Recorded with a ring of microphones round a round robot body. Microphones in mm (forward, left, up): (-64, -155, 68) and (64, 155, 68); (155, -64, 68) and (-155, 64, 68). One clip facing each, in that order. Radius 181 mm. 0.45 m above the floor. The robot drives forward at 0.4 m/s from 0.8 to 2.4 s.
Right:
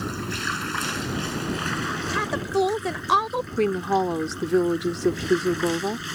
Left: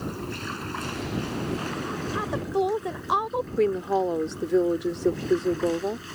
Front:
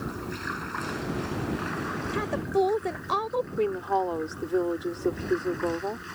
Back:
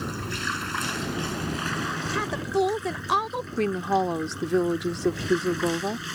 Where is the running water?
165° right; by 6.2 s 170° right.